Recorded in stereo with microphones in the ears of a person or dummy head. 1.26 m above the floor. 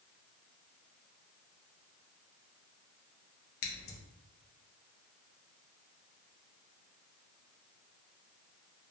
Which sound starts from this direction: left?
Scissors, at 3.6 s.